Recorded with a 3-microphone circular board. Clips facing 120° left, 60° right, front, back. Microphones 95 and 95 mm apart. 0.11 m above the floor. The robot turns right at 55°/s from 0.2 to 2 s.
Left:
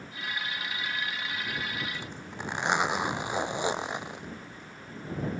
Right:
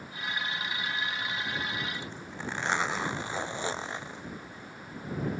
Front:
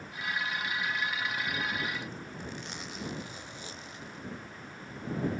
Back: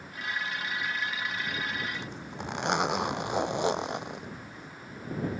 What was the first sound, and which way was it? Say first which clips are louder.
A zipper: even, back 2 dB; 170° right.